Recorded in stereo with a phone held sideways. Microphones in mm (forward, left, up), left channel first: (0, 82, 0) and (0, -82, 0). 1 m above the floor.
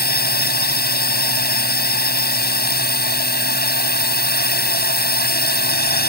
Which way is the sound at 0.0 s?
80° left.